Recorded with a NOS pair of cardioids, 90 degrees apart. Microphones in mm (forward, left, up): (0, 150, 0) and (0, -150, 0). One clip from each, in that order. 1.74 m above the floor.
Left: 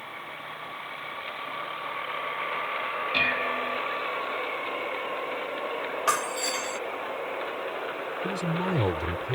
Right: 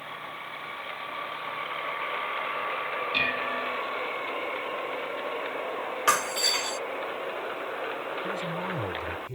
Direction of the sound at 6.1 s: 30° right.